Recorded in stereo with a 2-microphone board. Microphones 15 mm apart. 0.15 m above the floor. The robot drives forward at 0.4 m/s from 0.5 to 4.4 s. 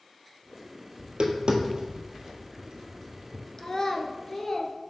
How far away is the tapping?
About 1.2 m.